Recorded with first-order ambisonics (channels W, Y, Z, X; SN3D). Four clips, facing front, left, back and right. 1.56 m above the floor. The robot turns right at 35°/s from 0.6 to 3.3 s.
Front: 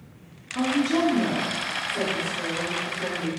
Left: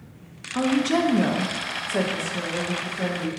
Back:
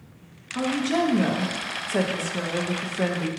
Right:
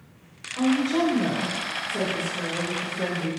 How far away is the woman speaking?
About 0.8 m.